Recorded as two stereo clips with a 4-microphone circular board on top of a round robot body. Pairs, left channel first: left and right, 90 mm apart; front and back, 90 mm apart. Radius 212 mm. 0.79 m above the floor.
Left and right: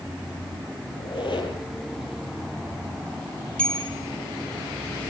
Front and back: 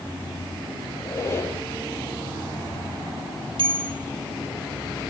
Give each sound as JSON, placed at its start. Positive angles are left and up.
{"t": 1.0, "sound": "a squeak", "azimuth_deg": 60, "distance_m": 8.0}
{"t": 3.6, "sound": "a bell", "azimuth_deg": 170, "distance_m": 4.0}